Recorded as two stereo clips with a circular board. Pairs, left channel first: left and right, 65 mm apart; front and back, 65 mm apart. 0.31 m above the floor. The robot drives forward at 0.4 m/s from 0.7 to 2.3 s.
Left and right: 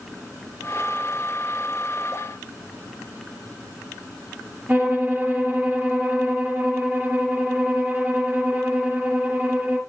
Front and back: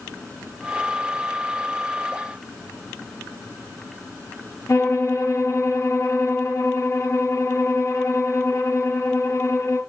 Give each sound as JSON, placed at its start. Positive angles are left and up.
{"t": 4.7, "sound": "a violin", "azimuth_deg": -35, "distance_m": 3.5}